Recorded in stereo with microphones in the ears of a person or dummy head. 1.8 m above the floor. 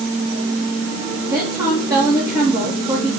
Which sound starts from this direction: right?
A woman speaking, at 1.3 s.